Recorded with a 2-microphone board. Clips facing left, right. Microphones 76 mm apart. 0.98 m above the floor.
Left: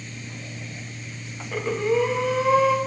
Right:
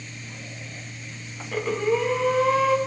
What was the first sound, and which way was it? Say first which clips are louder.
Breathing: left 1 dB; 5° left (ahead or behind).